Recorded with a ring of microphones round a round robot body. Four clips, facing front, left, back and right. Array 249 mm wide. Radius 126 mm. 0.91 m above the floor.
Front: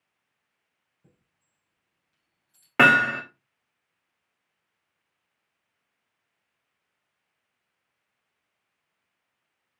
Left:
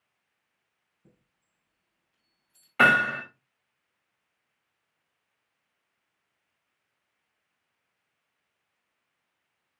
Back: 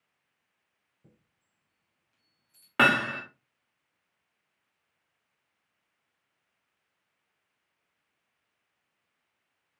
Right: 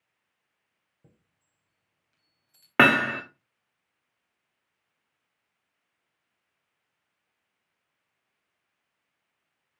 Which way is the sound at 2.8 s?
75° right.